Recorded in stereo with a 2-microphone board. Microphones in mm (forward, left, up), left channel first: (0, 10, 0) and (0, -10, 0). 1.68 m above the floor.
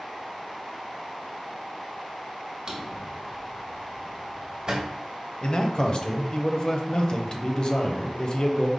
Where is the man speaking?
40° left (ahead or behind), 0.6 m.